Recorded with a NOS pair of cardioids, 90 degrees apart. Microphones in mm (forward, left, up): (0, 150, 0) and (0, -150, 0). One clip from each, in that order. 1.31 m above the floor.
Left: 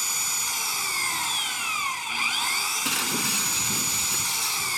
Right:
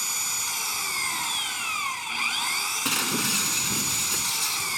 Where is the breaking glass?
15° right.